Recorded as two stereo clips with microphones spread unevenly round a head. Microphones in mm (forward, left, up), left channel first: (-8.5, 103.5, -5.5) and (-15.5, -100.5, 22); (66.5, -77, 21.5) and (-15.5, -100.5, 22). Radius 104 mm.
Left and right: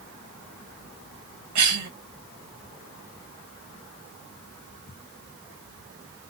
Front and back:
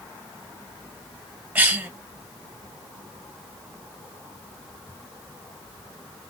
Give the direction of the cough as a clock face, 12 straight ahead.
3 o'clock.